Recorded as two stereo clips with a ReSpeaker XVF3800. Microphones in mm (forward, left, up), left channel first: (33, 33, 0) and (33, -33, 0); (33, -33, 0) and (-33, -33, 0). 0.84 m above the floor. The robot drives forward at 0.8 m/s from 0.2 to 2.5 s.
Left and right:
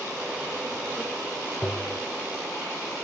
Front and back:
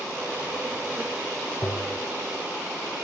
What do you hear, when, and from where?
1.6 s tapping: 35° left, 1.7 m; by 2.0 s 45° left, 1.4 m